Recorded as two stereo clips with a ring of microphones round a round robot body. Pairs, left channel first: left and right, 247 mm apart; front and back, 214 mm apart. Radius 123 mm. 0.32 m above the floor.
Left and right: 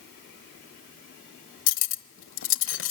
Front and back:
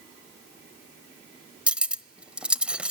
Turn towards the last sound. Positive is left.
turn(degrees=95)